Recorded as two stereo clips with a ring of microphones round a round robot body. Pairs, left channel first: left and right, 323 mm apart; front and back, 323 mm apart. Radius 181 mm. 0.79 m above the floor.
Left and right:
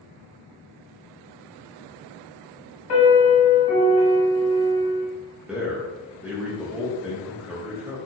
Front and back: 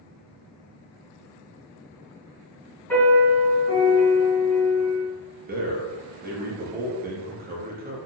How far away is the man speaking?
About 0.7 m.